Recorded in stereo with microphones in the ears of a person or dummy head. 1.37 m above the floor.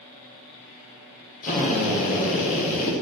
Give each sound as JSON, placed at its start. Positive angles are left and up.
{"t": 1.4, "sound": "a drill", "side_deg": 45, "distance_m": 4.5}